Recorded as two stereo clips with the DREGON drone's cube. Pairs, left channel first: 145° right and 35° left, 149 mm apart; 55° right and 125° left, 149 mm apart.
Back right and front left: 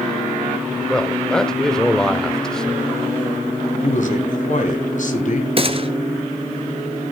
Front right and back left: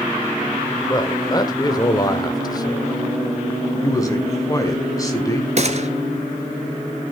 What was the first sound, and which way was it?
A man speaking, 65° right.